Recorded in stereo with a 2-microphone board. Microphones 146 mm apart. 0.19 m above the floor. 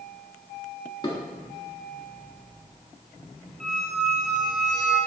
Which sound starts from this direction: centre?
A squeak, at 3.6 s.